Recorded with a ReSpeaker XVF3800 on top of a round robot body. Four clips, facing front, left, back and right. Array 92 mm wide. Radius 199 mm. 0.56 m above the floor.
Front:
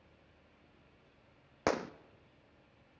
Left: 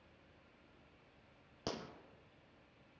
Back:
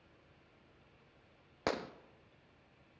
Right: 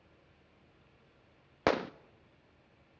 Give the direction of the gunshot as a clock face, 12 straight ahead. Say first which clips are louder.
Right 15 dB, front 4 dB; 2 o'clock.